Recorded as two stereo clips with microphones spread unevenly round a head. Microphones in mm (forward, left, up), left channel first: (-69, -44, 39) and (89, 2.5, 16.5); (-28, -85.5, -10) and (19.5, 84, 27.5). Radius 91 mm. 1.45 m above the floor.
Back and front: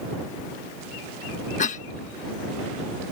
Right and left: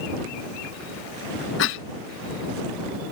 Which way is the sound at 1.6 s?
115° right.